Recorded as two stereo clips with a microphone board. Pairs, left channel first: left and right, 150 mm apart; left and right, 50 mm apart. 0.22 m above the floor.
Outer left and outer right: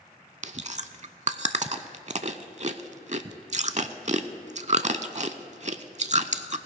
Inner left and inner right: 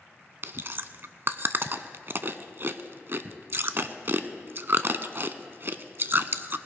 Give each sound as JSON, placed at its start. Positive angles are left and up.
{"t": 0.4, "sound": "chewing", "side_deg": -50, "distance_m": 0.5}